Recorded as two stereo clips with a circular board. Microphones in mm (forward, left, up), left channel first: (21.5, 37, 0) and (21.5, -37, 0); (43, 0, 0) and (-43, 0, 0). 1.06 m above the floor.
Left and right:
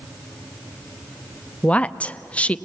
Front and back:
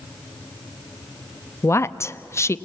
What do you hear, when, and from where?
1.6 s a woman speaking: 30° left, 0.6 m